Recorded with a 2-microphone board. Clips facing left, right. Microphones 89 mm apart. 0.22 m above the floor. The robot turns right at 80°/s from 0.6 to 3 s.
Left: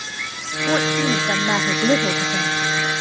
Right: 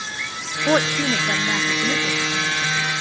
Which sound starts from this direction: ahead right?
A woman speaking, at 0.7 s.